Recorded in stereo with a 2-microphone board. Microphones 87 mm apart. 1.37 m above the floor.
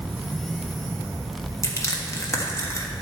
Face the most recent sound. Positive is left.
turn(degrees=35)  # may be behind; listen again after turning